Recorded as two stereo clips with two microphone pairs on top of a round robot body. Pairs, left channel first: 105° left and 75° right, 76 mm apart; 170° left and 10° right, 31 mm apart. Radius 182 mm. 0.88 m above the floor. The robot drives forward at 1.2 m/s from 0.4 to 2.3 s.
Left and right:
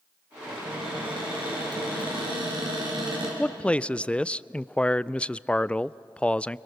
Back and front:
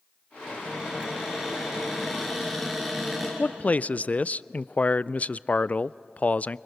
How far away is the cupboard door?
About 6.5 m.